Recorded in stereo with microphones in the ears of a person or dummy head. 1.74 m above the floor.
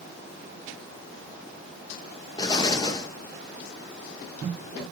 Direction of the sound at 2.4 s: 25° left (ahead or behind).